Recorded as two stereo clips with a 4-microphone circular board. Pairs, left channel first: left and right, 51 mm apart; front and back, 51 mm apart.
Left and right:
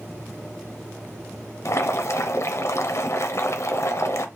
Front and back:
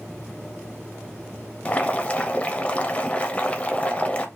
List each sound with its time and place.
1.6 s boiling: 65° left, 0.7 m